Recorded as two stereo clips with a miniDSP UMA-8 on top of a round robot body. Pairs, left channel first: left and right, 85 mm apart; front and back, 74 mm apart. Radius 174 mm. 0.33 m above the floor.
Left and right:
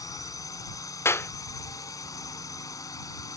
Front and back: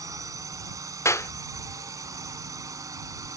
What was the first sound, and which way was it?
A drone, 140° left.